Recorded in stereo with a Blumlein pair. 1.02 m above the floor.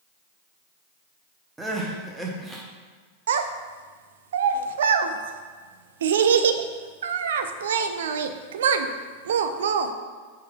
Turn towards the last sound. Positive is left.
turn(degrees=-60)